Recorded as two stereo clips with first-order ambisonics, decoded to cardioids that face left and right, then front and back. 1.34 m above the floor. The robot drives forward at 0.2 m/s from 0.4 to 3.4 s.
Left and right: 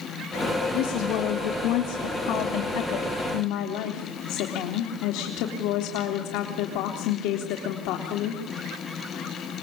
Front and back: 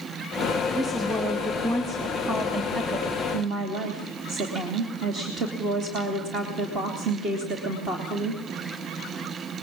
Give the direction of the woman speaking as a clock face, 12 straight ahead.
8 o'clock.